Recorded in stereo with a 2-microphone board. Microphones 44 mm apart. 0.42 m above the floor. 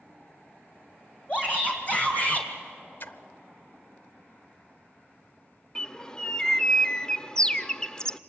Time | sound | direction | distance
1.3 | a shout | 30° left (ahead or behind) | 2.5 m
3.0 | a splash | 50° left (ahead or behind) | 0.7 m
5.8 | a bird | 20° left (ahead or behind) | 0.6 m